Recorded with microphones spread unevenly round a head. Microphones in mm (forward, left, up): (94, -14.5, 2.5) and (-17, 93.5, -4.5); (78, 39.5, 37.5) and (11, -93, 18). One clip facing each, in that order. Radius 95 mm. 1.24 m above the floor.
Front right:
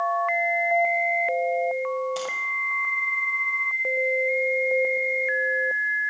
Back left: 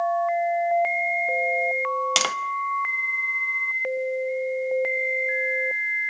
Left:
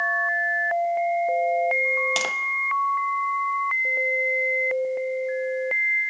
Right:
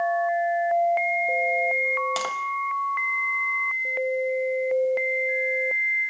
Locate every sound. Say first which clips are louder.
2.2 s tapping: back left 2 dB, even; 135° left, 0.9 m